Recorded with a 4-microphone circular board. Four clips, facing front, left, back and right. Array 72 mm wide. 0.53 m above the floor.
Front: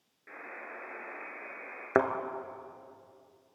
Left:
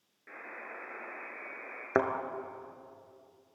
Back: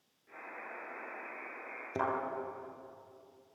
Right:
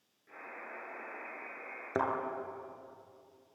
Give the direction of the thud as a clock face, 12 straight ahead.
11 o'clock.